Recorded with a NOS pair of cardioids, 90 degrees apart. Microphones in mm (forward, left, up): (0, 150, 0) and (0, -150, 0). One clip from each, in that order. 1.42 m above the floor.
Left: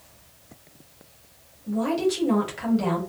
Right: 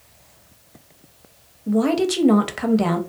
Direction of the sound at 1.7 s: 50° right.